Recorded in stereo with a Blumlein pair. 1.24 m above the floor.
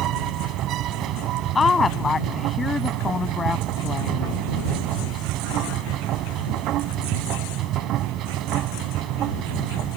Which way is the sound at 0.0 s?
35° right.